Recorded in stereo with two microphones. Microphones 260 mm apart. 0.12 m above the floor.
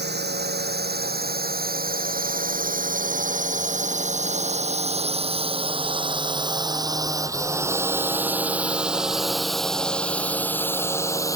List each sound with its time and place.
0.0 s a drone: 40° right (ahead or behind); by 11.4 s 15° left (ahead or behind)